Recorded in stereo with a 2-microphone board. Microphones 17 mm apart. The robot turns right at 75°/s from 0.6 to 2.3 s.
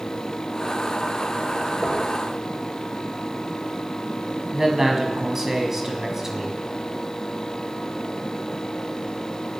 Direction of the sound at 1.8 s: 75° right (ahead or behind).